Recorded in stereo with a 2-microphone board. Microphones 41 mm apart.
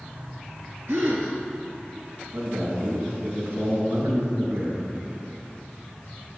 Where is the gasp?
60° right (ahead or behind), 3 m.